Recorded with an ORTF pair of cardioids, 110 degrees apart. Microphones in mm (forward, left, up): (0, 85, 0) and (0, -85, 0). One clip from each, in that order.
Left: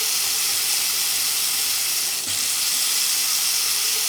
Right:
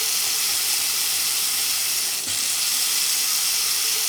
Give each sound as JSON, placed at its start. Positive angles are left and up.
{"t": 0.0, "sound": "running water", "azimuth_deg": 0, "distance_m": 0.8}